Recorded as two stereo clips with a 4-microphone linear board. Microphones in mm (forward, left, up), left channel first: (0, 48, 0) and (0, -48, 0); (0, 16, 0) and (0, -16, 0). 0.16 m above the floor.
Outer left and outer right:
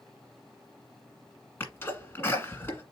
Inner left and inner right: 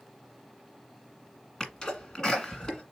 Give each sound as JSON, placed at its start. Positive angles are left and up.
{"t": 1.6, "sound": "a sneeze", "side_deg": 25, "distance_m": 1.5}